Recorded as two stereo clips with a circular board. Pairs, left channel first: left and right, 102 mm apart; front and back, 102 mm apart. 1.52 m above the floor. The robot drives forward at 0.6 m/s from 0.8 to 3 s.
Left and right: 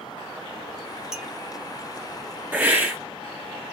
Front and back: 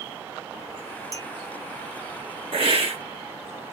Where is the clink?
15° right, 0.7 m; by 1.3 s 20° right, 0.6 m.